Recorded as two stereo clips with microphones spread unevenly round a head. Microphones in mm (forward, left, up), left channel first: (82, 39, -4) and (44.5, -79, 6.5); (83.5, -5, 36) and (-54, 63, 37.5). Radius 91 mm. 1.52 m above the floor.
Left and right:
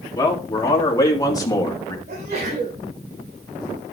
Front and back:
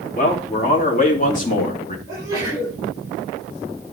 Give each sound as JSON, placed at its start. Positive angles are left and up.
{"t": 0.1, "sound": "a man speaking", "azimuth_deg": 10, "distance_m": 3.5}
{"t": 2.1, "sound": "a sneeze", "azimuth_deg": -135, "distance_m": 5.0}